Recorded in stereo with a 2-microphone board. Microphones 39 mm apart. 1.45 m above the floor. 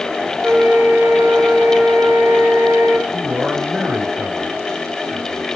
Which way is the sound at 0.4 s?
55° right (ahead or behind).